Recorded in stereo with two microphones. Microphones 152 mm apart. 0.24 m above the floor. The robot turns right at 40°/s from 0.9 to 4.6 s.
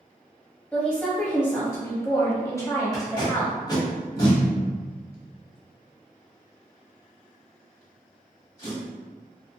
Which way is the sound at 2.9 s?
25° left (ahead or behind).